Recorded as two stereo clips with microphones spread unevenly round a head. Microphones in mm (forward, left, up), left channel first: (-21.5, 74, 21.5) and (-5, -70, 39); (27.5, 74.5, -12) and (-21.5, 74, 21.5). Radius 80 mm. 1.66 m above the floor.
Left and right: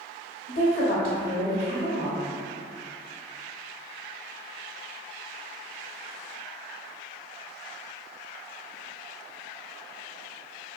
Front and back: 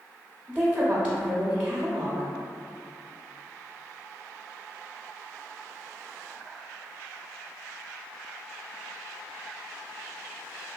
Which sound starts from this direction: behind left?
A woman speaking, at 0.5 s.